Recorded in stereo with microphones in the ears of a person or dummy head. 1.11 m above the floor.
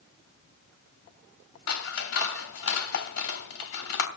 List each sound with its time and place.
1.7 s scissors: 75° left (ahead or behind), 3 m